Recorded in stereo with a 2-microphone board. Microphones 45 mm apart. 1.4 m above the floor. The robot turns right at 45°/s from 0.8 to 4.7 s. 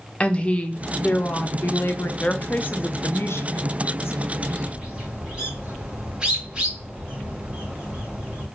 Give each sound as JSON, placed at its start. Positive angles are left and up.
{"t": 0.2, "sound": "a woman speaking", "azimuth_deg": 30, "distance_m": 1.0}
{"t": 2.2, "sound": "a woman speaking", "azimuth_deg": 25, "distance_m": 0.7}
{"t": 4.4, "sound": "a bird", "side_deg": -35, "distance_m": 3.0}